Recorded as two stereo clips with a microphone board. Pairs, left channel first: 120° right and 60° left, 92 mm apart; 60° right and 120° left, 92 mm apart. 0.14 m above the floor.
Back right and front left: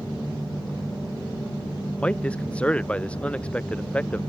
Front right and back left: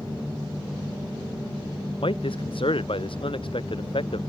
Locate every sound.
2.0 s a man speaking: 45° right